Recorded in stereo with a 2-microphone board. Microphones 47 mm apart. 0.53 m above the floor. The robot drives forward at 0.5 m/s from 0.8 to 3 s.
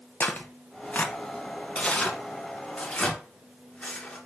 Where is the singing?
No singing in this recording.